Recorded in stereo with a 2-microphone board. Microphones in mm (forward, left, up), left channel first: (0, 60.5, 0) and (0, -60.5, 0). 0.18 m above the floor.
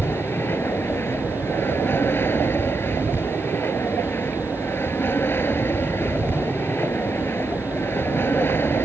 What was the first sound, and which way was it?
An aircraft, 20° left (ahead or behind).